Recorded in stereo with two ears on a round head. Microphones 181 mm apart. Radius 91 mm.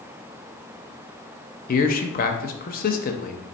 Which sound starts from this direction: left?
A man speaking, at 1.7 s.